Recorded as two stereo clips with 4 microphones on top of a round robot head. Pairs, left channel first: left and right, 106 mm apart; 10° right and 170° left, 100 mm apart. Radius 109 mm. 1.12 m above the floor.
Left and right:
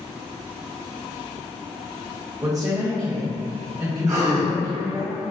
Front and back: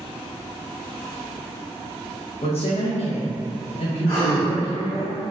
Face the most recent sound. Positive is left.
turn(degrees=-80)